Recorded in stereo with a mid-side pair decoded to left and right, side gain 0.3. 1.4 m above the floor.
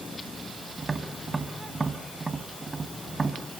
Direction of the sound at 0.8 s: 35° right.